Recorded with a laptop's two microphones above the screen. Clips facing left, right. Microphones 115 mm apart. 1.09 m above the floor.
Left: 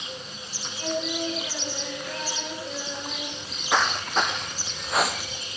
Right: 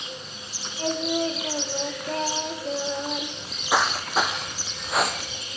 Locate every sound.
0.8 s singing: 40° right (ahead or behind), 3 m
3.4 s footsteps: 10° right (ahead or behind), 2 m; by 5.4 s 5° left (ahead or behind), 1.1 m